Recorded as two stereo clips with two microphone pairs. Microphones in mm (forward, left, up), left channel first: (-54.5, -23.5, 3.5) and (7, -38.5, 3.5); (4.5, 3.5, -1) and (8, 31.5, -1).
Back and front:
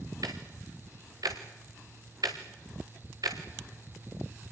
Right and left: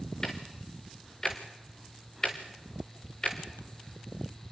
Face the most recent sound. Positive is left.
turn(degrees=-30)